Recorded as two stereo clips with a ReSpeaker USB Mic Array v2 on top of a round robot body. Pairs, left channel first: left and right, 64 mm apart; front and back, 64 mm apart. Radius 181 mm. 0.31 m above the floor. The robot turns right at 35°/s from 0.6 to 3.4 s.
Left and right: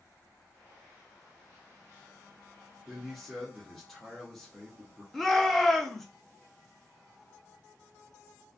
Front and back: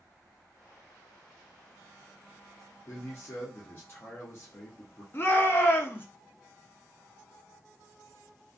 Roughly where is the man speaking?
Ahead.